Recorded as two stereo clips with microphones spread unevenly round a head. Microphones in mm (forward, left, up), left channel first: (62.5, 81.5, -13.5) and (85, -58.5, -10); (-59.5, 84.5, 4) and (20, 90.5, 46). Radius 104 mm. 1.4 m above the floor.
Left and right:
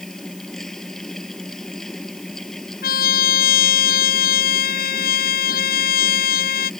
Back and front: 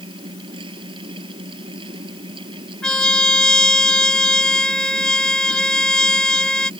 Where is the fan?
10° left.